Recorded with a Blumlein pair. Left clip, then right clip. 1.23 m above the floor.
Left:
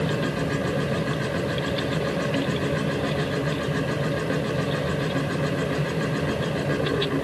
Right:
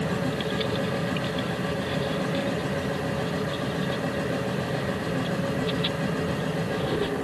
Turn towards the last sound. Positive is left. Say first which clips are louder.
# left 2 dB
turn(degrees=70)